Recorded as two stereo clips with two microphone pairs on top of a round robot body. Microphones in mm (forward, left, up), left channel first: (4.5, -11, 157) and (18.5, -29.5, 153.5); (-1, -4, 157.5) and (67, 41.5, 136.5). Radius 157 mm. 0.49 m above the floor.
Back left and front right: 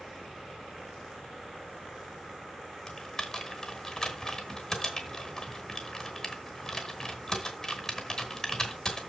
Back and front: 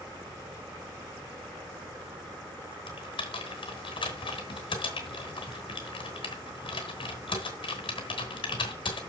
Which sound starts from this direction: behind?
Typing on a keyboard, at 2.9 s.